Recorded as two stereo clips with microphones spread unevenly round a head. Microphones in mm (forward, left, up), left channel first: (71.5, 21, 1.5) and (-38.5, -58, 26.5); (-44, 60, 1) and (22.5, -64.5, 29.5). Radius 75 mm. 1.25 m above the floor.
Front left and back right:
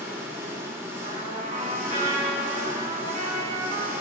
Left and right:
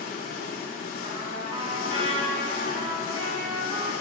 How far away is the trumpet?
About 2.5 m.